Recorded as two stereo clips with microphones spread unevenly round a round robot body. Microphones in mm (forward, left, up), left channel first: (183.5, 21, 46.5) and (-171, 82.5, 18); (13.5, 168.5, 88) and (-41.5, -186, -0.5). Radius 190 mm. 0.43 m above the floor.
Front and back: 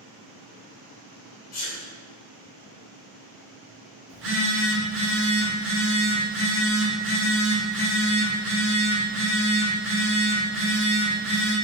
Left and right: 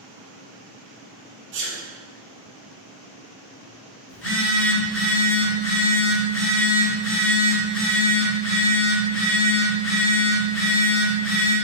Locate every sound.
1.5 s a sneeze: 55° right, 1.4 m
4.1 s a phone buzzing: 140° left, 1.4 m